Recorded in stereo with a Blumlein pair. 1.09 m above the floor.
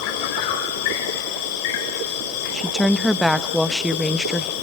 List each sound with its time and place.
0.0 s an insect: 50° left, 3 m
2.5 s a woman speaking: straight ahead, 0.9 m